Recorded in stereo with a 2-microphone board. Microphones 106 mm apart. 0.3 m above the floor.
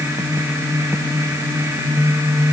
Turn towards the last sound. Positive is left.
No sound to turn to.